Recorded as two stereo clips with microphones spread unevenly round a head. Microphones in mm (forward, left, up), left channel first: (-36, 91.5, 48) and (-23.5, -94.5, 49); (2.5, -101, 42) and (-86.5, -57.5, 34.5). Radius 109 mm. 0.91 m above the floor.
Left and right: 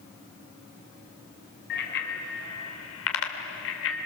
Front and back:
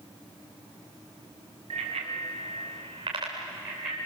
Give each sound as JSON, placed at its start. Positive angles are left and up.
{"t": 1.7, "sound": "a bicycle bell", "azimuth_deg": 125, "distance_m": 3.0}